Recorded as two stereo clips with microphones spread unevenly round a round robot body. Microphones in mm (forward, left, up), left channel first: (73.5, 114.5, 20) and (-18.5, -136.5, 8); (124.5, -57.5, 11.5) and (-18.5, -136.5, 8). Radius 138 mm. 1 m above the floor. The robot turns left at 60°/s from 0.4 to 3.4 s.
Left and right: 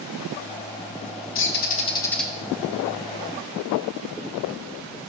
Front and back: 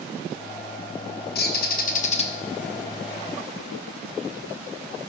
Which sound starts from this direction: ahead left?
A bird, at 1.4 s.